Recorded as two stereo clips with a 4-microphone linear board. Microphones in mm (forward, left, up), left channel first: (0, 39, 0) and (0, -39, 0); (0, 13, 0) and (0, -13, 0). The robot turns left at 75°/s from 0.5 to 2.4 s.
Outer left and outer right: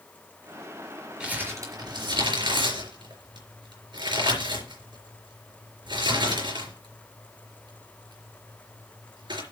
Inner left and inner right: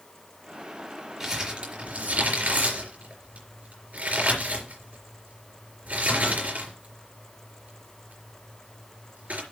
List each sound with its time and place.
1.2 s crumpling: 10° right (ahead or behind), 4 m; by 9.4 s 80° right, 4 m